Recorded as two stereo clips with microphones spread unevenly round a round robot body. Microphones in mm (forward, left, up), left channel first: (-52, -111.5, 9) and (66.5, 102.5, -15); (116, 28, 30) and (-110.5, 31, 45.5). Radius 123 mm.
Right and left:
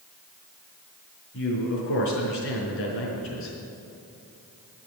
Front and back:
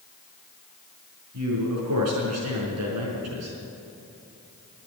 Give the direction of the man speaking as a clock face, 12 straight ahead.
5 o'clock.